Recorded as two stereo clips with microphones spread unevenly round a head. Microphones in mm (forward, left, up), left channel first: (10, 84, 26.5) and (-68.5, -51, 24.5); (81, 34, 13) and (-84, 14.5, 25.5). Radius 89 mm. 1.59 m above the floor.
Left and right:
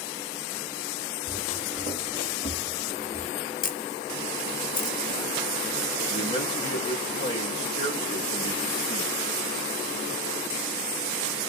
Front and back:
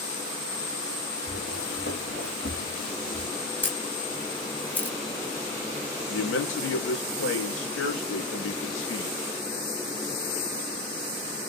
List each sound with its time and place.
1.3 s footsteps: 10° left, 3 m; by 3.3 s 5° right, 1.7 m
3.6 s a camera shutter: 90° left, 1.6 m
6.1 s a man speaking: 5° right, 1.9 m